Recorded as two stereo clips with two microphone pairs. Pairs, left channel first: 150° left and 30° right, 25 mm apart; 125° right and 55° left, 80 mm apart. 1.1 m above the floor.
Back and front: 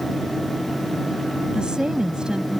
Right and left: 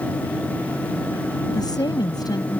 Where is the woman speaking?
90° right.